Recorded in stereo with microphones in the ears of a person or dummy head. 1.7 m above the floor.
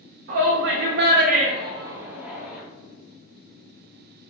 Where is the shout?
60° right (ahead or behind), 0.8 m; by 2.6 s centre (ahead or behind), 1.3 m.